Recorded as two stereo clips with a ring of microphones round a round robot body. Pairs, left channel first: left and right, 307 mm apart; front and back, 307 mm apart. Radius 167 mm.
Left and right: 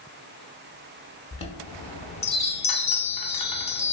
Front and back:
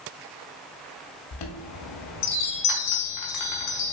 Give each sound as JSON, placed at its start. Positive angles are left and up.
{"t": 1.3, "sound": "a chime", "azimuth_deg": 20, "distance_m": 0.6}